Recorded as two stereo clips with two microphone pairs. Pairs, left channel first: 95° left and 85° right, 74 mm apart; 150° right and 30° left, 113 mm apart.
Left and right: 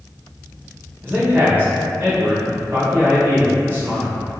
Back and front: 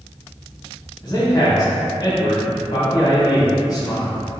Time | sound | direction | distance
1.0 | a man speaking | 125° right | 1.2 m